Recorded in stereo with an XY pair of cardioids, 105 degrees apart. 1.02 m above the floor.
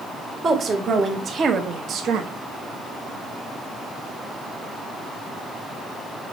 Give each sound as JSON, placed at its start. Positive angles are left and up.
{"t": 0.4, "sound": "a woman speaking", "azimuth_deg": -45, "distance_m": 1.5}